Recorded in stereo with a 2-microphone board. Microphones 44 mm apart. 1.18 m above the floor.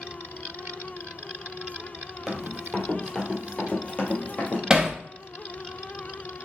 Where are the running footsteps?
Centre (ahead or behind), 1.2 m; by 4.6 s 45° left (ahead or behind), 1.5 m.